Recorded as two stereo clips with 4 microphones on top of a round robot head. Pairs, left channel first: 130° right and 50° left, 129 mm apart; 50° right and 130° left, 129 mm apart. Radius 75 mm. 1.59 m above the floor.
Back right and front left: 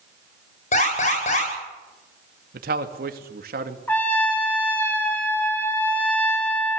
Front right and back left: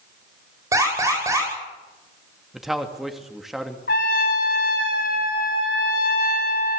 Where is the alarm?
160° right, 10 m.